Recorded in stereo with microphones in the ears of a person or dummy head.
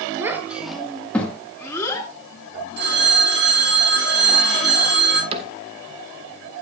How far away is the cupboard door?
About 1.6 m.